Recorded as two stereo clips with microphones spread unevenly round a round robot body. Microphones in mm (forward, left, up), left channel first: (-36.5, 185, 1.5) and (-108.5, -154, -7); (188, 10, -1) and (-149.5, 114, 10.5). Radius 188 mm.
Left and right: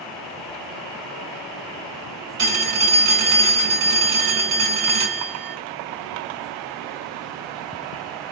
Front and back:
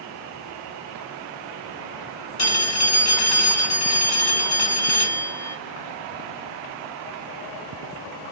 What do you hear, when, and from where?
2.4 s a phone ringing: 45° right, 1.5 m